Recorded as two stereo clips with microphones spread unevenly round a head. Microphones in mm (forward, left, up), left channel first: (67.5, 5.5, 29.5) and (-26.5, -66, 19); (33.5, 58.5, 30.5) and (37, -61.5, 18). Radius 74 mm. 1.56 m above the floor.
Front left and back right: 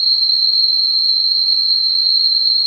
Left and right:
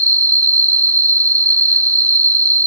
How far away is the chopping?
I don't hear chopping.